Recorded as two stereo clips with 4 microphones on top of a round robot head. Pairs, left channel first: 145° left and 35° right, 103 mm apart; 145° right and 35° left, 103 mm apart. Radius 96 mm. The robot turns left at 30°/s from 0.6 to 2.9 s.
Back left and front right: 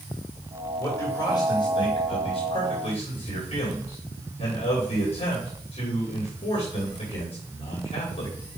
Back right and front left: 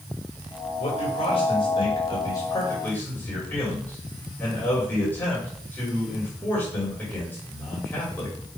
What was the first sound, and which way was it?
A man speaking, 155° right.